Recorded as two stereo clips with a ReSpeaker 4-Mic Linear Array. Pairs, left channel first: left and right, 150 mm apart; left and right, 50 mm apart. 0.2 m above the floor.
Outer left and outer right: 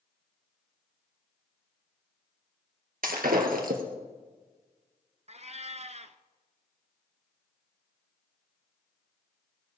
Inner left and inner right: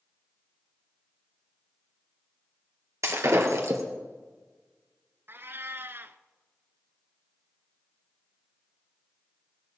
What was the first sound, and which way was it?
Breaking glass, 75° right (ahead or behind).